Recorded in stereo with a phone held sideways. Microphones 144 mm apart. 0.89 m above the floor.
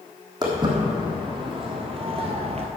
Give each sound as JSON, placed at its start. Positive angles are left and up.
{"t": 0.4, "sound": "footsteps", "side_deg": -30, "distance_m": 2.5}